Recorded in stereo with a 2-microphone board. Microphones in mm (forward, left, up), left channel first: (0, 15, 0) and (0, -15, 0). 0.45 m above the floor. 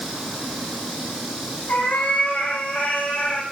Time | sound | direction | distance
1.7 | a cat meowing | 85° left | 6 m